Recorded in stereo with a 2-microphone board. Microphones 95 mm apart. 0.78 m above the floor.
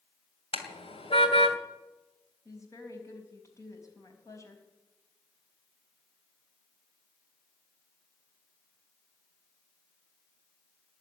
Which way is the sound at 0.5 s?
90° left.